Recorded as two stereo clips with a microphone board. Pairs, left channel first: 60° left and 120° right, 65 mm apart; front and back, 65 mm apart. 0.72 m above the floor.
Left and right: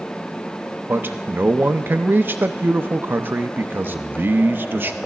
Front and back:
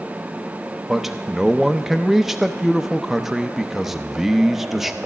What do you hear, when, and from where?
0.9 s a man speaking: 95° right, 0.5 m